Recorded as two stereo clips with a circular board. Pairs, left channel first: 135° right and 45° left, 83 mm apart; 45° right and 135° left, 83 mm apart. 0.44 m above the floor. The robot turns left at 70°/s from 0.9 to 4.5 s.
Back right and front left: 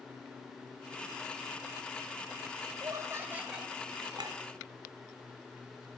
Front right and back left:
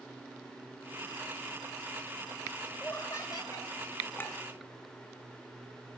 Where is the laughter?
25° left, 1.6 m; by 3.7 s 40° right, 1.6 m.